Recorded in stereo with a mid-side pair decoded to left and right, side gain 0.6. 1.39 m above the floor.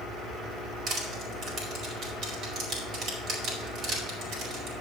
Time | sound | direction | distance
0.9 | crushing | 60° right | 5 m